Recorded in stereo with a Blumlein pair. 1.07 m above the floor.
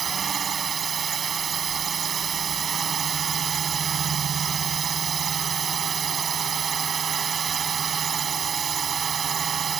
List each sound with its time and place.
0.0 s a drone: 20° right